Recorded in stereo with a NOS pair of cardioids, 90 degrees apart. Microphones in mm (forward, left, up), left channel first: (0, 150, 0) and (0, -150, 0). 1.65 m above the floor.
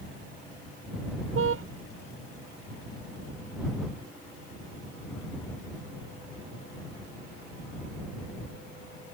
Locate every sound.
1.4 s a car horn: 45° right